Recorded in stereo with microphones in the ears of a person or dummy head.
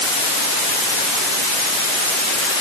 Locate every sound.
Only background noise.